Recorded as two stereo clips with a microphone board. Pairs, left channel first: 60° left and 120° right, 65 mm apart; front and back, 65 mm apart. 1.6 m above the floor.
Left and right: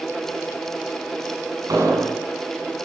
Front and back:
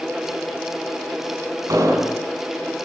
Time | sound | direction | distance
1.7 | an explosion | 150° right | 7.5 m